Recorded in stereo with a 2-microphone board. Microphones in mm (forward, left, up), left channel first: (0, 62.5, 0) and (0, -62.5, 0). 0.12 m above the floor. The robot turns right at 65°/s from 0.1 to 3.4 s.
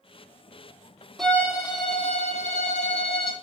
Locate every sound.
1.2 s a violin: straight ahead, 1.2 m; by 3.3 s 140° left, 1.2 m